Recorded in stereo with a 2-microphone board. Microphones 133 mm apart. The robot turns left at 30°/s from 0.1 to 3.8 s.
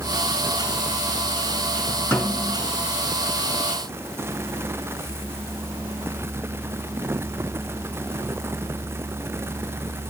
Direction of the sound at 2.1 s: 15° left (ahead or behind).